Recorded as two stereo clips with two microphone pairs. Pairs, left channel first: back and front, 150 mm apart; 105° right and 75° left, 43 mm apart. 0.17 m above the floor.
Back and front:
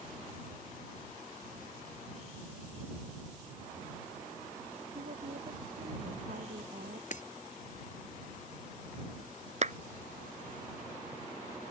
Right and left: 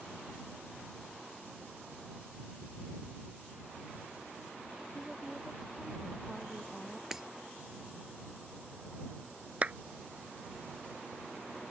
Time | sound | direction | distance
5.0 | a woman speaking | 25° right | ?
7.1 | breaking glass | 155° left | ?
9.6 | a clap | 20° left | ?